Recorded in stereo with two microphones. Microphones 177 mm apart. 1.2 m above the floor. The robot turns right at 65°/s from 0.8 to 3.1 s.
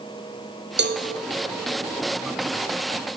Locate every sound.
0.8 s a cowbell: 75° right (ahead or behind), 0.7 m; by 1.0 s 70° right (ahead or behind), 0.7 m